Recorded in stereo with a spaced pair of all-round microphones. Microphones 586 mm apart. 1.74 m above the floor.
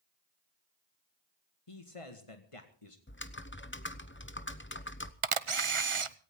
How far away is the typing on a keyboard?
About 1.0 m.